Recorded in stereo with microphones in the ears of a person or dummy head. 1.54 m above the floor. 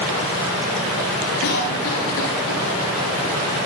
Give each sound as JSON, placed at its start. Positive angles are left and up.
{"t": 1.4, "sound": "a cough", "side_deg": 80, "distance_m": 5.0}